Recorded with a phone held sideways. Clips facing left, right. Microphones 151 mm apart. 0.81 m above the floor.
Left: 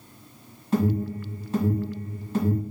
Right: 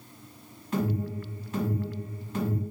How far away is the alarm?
About 1.7 m.